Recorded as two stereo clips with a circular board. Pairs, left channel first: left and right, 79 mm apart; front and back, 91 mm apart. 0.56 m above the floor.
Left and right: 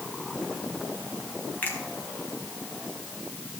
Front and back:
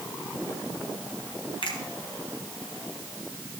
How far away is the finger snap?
About 3.5 m.